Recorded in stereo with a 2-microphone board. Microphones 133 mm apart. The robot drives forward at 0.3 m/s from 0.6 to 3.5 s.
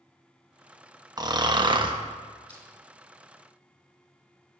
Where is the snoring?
35° right (ahead or behind), 0.6 m; by 1.9 s 40° right (ahead or behind), 0.5 m.